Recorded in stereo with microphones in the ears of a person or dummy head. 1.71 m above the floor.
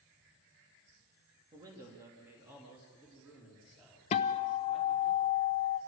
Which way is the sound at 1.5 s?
25° right (ahead or behind).